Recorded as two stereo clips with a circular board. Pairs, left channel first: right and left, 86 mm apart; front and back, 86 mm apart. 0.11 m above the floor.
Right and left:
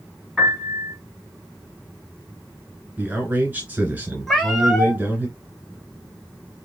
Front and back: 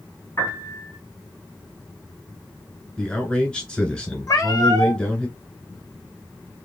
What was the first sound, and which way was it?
A piano, 10° right.